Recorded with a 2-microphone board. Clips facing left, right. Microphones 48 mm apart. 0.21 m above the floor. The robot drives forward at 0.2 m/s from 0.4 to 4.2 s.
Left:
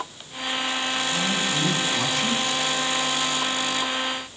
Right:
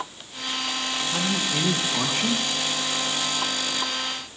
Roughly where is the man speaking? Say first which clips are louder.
Left 1 dB; right.